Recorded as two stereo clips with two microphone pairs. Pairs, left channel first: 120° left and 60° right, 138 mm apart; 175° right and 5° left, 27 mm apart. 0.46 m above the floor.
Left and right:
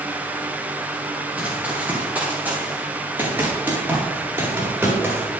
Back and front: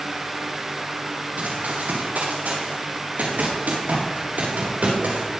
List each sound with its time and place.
1.4 s running footsteps: 20° left, 6 m; by 5.2 s 15° left, 9 m